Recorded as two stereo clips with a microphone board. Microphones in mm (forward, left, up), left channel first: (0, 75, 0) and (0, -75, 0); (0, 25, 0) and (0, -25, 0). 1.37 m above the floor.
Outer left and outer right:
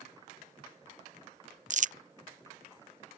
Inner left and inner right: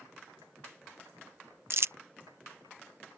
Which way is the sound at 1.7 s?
55° right (ahead or behind).